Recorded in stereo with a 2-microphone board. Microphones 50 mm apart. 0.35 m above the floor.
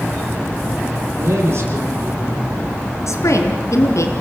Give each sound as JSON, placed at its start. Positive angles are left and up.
{"t": 1.2, "sound": "a man speaking", "side_deg": -60, "distance_m": 9.0}
{"t": 3.1, "sound": "a woman speaking", "side_deg": 75, "distance_m": 3.5}